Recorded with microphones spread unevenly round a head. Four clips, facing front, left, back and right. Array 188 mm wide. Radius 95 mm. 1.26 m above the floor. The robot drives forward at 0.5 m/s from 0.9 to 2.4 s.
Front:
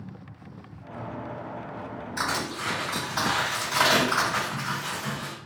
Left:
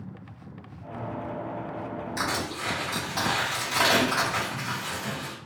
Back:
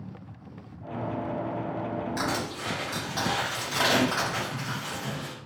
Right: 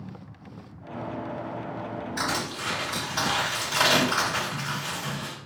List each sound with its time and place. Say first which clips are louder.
2.2 s crushing: even, even; 125° left, 1.7 m; by 5.3 s 130° left, 1.7 m